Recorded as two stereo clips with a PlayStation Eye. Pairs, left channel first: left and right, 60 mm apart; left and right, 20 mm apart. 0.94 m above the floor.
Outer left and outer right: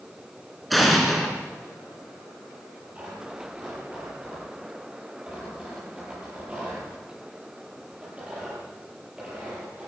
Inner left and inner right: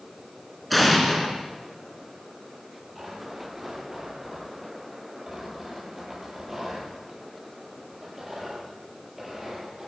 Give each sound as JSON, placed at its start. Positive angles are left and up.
{"t": 0.7, "sound": "an explosion", "side_deg": 0, "distance_m": 3.0}
{"t": 3.0, "sound": "tearing paper", "side_deg": -20, "distance_m": 10.0}